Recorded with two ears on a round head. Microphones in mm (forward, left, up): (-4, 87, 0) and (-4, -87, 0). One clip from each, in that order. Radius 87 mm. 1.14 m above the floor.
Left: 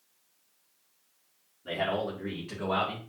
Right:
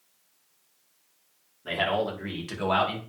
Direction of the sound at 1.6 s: 35° right (ahead or behind).